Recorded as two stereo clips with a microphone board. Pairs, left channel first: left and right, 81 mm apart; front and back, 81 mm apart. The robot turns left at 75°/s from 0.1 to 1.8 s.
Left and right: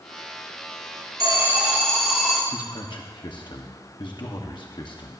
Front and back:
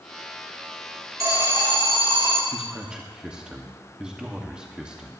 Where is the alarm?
135° right, 2 m; by 2.4 s straight behind, 2 m.